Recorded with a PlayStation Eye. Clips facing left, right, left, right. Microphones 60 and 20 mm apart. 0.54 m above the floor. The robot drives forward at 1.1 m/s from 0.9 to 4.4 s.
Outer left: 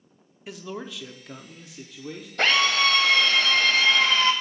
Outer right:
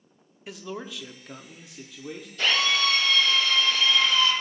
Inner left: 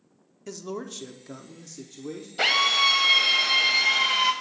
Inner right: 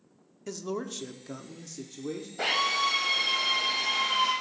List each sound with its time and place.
0.5 s a man speaking: centre (ahead or behind), 0.9 m
2.4 s a drill: 60° left (ahead or behind), 2.0 m; by 4.3 s 50° left (ahead or behind), 2 m